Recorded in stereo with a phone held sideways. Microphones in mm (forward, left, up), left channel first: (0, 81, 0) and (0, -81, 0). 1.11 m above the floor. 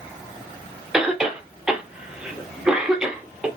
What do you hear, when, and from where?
0.9 s a cough: 5° right (ahead or behind), 0.9 m